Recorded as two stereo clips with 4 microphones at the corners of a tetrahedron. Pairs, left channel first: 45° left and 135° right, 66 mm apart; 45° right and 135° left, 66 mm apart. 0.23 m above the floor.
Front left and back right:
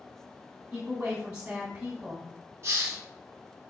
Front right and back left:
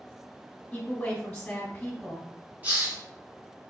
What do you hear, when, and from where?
0.7 s a woman speaking: 80° right, 1.4 m
2.6 s a hiss: 165° right, 1.4 m